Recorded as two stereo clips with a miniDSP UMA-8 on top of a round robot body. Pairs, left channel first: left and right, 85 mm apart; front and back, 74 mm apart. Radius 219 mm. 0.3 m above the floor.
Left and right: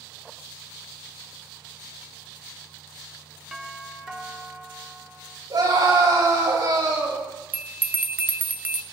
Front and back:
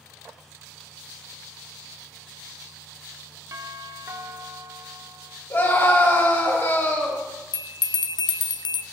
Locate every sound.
3.5 s a doorbell: 175° right, 1.5 m
5.5 s a scream: 60° right, 7.5 m
7.5 s a bell: 20° right, 0.6 m